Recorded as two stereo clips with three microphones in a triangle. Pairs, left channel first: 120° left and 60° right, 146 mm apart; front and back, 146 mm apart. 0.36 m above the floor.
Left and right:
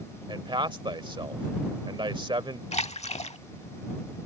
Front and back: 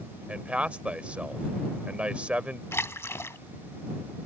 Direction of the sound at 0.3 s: 100° right.